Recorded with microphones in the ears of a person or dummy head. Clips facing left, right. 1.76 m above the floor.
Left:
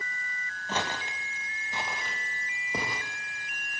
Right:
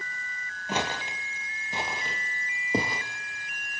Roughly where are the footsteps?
Centre.